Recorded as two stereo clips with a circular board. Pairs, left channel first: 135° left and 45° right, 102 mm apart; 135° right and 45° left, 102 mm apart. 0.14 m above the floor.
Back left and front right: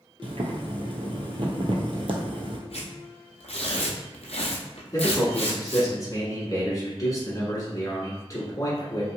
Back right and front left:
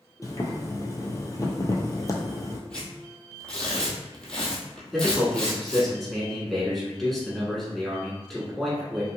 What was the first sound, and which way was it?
Boiling, 75° right.